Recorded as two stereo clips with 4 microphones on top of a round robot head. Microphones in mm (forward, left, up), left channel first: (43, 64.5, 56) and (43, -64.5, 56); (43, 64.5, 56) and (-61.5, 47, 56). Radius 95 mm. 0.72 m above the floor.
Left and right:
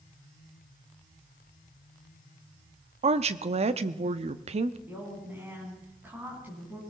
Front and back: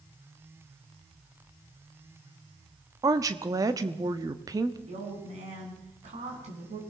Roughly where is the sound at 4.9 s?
Behind.